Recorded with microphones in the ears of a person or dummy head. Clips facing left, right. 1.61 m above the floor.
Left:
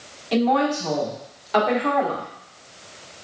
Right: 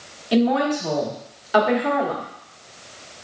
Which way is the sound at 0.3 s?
10° right (ahead or behind).